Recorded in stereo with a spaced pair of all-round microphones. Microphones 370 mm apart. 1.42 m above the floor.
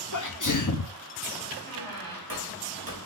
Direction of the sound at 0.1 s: 55° left (ahead or behind).